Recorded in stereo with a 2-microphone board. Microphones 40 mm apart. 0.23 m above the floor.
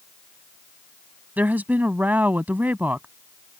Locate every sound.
1.4 s a woman speaking: 40° right (ahead or behind)